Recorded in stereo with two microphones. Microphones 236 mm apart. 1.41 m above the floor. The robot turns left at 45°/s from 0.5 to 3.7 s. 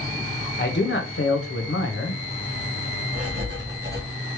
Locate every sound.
0.6 s a man speaking: 135° left, 0.9 m; by 2.2 s 60° left, 0.9 m
3.1 s writing: 70° right (ahead or behind), 2.0 m; by 4.0 s 45° right (ahead or behind), 2.0 m